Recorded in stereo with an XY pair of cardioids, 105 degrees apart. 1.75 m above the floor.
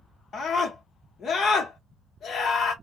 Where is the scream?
55° left, 0.8 m.